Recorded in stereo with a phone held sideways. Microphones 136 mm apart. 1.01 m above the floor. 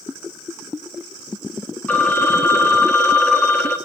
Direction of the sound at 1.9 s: 15° left (ahead or behind).